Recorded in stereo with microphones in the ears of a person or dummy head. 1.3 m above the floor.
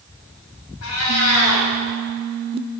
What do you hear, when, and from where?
0.8 s a cat meowing: 75° left (ahead or behind), 3 m